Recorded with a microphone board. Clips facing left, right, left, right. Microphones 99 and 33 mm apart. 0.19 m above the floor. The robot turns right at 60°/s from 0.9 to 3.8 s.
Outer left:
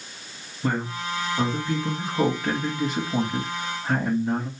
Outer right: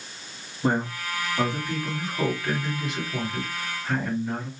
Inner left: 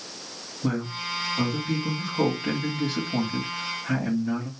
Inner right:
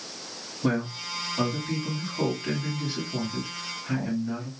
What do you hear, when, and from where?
0.6 s a man speaking: 30° right, 1.6 m; by 4.5 s 145° left, 1.6 m